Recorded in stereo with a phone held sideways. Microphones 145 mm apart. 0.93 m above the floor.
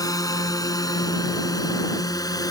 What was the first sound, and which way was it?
A drone, 25° left (ahead or behind).